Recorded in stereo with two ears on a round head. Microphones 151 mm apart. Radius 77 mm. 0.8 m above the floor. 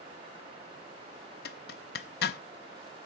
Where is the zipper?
65° left (ahead or behind), 0.5 m.